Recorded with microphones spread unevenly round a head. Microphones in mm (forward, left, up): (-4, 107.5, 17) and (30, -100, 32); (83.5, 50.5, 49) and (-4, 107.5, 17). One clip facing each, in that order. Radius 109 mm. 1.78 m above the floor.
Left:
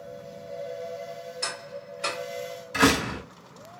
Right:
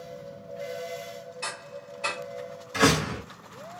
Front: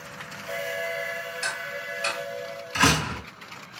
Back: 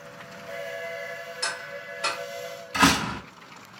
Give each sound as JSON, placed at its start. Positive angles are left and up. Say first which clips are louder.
{"t": 1.4, "sound": "ticking", "louder": "left 2 dB, front 2 dB", "azimuth_deg": 175, "distance_m": 2.0}
{"t": 2.7, "sound": "a door slam", "louder": "left 1 dB, back 2 dB", "azimuth_deg": -175, "distance_m": 2.5}